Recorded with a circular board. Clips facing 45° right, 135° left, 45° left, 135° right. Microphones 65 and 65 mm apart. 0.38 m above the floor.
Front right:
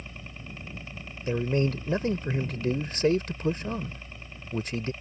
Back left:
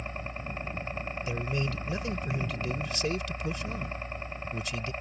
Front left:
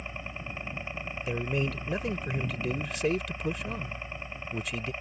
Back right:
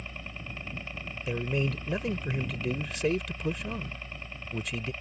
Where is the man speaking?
45° right.